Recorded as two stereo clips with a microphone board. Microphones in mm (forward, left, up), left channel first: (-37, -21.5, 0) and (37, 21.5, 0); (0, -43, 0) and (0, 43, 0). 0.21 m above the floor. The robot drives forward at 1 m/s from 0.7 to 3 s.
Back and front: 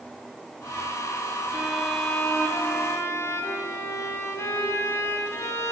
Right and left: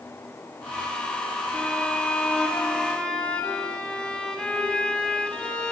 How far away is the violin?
About 1.7 m.